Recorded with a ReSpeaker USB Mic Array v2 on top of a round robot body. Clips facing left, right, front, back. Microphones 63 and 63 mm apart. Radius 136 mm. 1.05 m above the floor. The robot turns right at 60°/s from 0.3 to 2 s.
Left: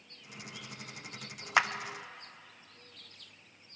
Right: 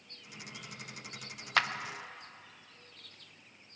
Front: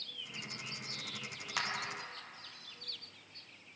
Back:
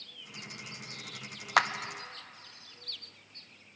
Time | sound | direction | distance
1.6 | a clap | 165° left | 0.9 m